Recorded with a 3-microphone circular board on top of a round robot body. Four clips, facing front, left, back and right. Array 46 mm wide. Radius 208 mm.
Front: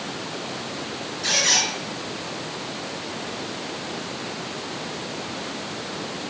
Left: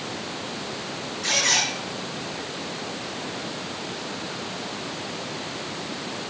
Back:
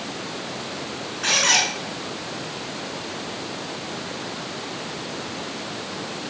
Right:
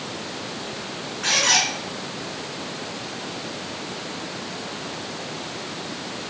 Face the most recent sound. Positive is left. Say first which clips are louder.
# right 3 dB, back 3 dB
turn(degrees=-150)